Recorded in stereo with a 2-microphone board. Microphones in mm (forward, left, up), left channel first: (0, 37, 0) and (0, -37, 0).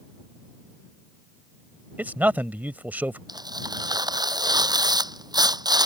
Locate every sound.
2.0 s a man speaking: 25° right (ahead or behind)
3.3 s tearing paper: 70° right (ahead or behind)